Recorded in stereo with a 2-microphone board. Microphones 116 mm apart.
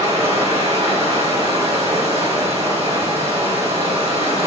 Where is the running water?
65° right (ahead or behind), 2.5 m.